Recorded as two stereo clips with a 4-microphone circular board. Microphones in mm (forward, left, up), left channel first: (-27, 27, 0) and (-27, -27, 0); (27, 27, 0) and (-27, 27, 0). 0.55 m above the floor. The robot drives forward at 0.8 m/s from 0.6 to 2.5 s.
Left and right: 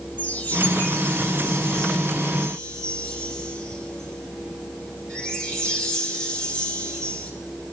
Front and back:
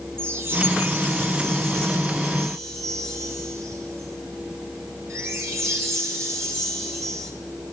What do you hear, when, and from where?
0.2 s a chime: 150° left, 3 m; by 7.3 s 160° left, 4.5 m